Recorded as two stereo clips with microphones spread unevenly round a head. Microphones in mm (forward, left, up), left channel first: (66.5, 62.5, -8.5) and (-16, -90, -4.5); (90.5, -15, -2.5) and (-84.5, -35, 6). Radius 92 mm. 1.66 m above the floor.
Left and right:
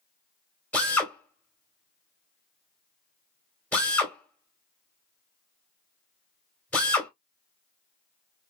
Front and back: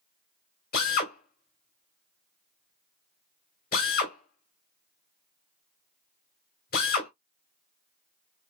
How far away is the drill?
About 2 m.